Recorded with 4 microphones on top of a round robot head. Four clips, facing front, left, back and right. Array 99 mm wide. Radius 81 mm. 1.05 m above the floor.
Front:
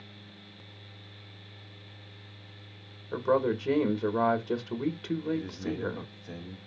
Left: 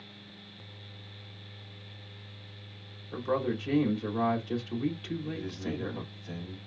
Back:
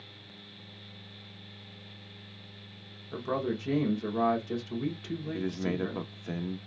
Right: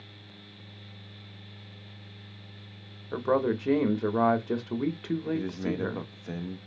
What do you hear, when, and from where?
3.1 s a man speaking: 60° right, 1.3 m
5.3 s a man speaking: 140° right, 1.0 m